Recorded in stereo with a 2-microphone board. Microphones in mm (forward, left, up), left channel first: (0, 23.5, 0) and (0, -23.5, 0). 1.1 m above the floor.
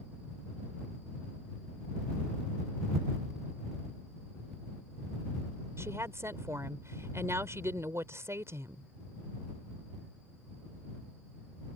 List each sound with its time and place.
5.8 s a woman speaking: 75° right (ahead or behind)